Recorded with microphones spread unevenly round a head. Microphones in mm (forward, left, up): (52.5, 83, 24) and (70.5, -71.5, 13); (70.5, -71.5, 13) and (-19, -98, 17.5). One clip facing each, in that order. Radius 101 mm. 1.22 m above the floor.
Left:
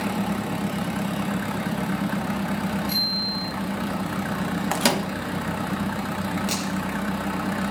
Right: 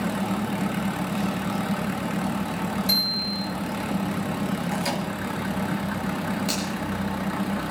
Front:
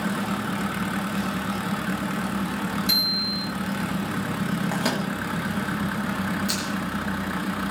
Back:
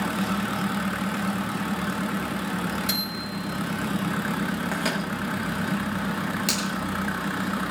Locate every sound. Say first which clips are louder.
2.9 s a bicycle bell: even, front 1 dB; 120° right, 8 m
4.7 s a microwave: left 4 dB, front 2 dB; 95° left, 1.4 m
6.5 s a finger snap: even, back 1 dB; 165° right, 9 m